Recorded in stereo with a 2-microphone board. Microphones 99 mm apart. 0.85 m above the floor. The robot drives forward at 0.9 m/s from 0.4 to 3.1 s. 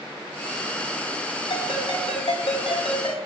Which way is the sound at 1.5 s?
65° left (ahead or behind).